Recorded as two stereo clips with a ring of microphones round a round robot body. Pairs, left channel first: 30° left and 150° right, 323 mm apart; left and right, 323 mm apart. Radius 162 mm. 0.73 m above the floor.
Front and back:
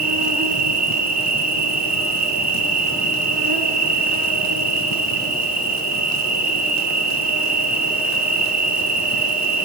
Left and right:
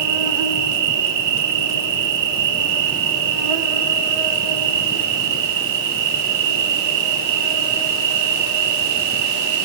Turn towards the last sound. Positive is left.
turn(degrees=-85)